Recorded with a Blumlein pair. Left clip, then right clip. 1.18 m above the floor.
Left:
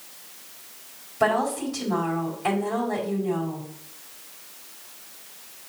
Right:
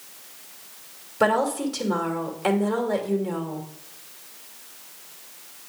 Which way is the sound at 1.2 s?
65° right.